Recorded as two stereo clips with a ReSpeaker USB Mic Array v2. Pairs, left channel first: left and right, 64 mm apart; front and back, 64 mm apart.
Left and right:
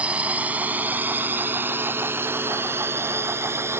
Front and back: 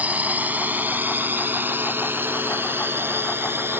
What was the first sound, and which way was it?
A drone, 140° right.